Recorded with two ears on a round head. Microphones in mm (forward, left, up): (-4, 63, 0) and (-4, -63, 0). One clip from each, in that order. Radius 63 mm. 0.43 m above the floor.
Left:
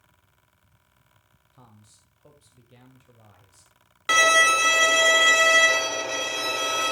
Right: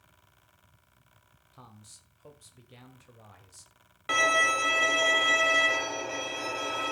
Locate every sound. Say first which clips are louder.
1.5 s a man speaking: right 3 dB; 25° right (ahead or behind), 1.5 m
4.1 s a violin: left 7 dB; 75° left (ahead or behind), 0.7 m